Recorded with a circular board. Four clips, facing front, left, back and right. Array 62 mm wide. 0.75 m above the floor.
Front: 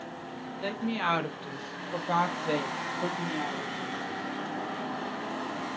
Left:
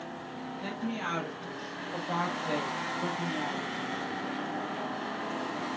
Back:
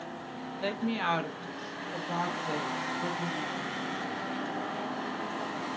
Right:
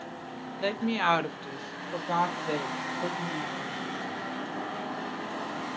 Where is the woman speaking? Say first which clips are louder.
Right 8 dB, even; 105° right, 0.8 m; by 4.0 s 5° left, 1.7 m.